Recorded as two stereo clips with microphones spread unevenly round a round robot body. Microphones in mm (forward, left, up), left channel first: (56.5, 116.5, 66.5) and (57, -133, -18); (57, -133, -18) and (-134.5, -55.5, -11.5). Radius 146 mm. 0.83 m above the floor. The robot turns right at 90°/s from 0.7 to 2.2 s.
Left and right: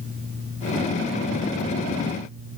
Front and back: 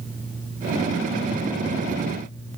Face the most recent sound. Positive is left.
No sound to turn to.